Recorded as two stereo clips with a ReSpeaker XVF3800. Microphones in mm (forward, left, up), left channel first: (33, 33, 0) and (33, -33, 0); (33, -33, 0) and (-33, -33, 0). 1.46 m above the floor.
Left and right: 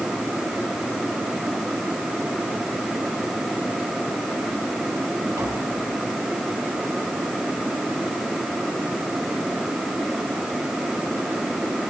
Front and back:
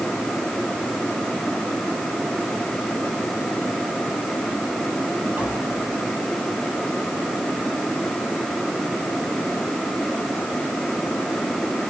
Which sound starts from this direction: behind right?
Tapping, at 5.4 s.